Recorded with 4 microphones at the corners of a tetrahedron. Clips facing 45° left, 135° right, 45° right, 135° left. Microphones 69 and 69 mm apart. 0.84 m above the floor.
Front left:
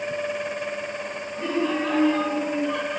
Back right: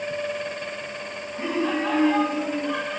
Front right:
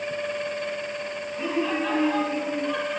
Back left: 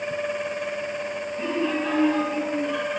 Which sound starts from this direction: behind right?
Laughter, at 1.3 s.